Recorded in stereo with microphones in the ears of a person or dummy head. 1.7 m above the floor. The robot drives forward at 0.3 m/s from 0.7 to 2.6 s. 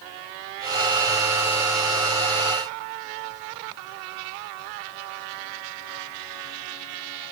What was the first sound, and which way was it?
Only background noise.